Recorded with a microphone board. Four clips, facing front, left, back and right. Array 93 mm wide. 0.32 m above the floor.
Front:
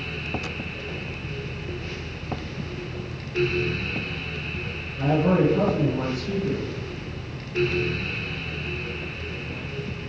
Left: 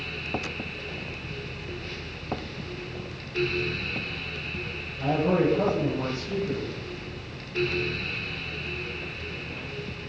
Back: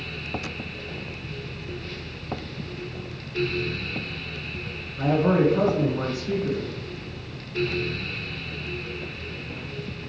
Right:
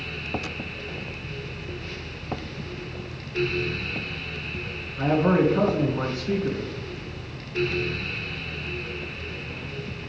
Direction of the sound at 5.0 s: 105° right.